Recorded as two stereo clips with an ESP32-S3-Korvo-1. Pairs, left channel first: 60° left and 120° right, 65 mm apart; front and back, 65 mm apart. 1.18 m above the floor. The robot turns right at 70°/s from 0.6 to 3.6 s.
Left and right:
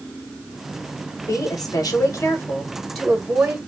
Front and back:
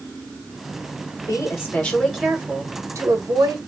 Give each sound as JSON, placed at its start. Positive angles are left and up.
{"t": 1.2, "sound": "a woman speaking", "azimuth_deg": 30, "distance_m": 1.5}